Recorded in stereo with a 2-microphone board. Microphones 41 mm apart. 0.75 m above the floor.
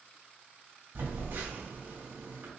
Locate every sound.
0.9 s a phone buzzing: 65° right (ahead or behind), 1.5 m